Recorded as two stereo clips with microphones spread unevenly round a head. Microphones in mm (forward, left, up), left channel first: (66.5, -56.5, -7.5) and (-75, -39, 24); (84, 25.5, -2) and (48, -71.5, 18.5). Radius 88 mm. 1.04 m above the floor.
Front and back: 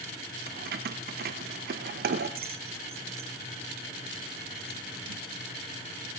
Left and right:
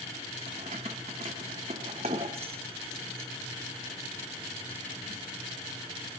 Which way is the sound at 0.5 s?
170° right.